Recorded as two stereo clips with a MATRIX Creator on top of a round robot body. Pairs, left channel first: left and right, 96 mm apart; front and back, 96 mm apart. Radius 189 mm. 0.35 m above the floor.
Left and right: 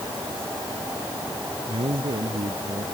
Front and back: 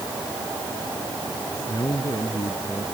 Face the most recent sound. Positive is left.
turn(degrees=-55)